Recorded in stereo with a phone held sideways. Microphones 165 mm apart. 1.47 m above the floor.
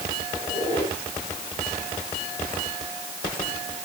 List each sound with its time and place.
0.3 s a squeak: 15° left (ahead or behind), 7 m